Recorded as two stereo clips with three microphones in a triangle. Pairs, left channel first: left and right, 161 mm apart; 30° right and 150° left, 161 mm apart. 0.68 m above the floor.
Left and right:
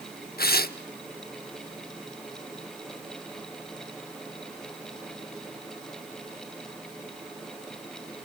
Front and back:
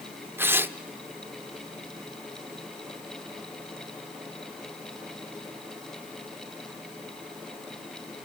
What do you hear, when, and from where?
0.4 s tearing paper: 75° left, 0.9 m